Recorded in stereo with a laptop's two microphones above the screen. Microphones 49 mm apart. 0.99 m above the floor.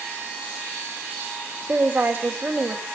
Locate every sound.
1.7 s a woman speaking: 45° right (ahead or behind), 3 m